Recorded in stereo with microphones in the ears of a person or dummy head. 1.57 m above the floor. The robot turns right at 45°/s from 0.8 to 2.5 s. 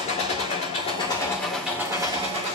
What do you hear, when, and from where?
0.0 s an engine running: 145° left, 4 m; by 2.5 s 140° right, 4 m